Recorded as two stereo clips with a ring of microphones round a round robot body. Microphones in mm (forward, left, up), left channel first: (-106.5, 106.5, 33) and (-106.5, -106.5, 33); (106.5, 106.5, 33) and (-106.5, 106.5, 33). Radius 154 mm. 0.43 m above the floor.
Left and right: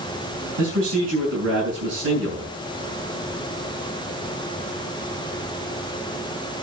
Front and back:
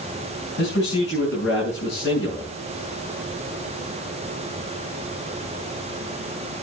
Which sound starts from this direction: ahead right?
A man speaking, at 0.6 s.